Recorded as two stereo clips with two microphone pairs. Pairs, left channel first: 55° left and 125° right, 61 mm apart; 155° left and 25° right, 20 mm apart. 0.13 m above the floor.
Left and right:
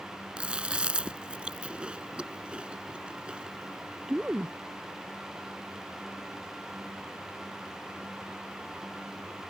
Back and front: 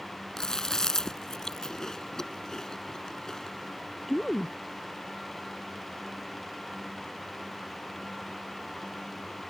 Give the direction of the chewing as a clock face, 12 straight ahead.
6 o'clock.